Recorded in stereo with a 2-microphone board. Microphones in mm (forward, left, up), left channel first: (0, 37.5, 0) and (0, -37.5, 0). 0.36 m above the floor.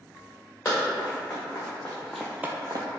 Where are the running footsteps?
35° left (ahead or behind), 1.9 m; by 2.9 s 60° right (ahead or behind), 0.6 m.